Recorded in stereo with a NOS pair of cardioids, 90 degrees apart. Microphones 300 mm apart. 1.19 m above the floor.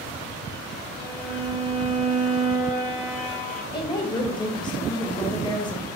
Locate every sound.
1.0 s a violin: 25° left, 1.0 m
3.7 s a woman speaking: 15° left, 1.0 m